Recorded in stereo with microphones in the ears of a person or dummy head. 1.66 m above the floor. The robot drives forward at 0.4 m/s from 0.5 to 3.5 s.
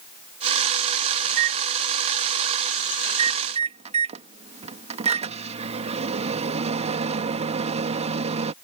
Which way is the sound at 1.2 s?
60° right (ahead or behind).